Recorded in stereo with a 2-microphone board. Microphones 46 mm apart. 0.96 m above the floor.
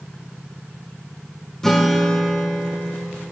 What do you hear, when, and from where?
1.6 s a guitar: 10° left (ahead or behind), 0.9 m